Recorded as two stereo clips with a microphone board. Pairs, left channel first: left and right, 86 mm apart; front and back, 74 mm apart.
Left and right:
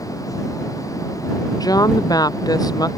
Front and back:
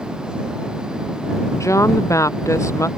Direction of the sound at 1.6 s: 50° left.